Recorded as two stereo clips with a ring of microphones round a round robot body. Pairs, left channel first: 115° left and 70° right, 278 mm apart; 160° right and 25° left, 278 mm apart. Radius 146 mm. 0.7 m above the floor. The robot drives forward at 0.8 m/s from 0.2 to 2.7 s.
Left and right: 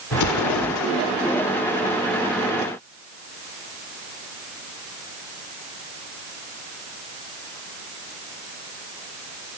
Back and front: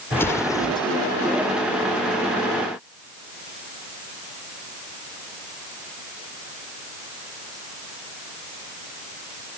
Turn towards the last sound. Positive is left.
turn(degrees=145)